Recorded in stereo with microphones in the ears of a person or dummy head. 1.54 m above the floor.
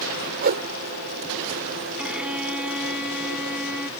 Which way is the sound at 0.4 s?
55° right (ahead or behind).